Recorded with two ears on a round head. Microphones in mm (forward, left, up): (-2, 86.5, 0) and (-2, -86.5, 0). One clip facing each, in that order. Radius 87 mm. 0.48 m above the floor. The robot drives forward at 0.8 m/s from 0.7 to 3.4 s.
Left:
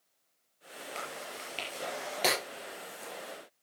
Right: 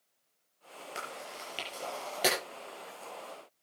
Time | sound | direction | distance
0.9 | chewing | 10° right (ahead or behind) | 6 m